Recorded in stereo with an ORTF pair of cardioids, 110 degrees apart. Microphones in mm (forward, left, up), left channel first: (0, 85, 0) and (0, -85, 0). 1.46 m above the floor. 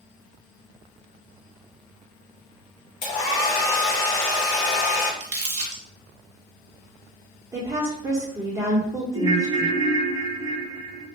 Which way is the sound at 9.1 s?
15° right.